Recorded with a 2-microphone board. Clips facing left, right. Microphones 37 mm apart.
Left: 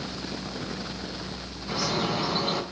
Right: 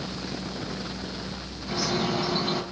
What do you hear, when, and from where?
1.7 s a bird: 25° left (ahead or behind), 3 m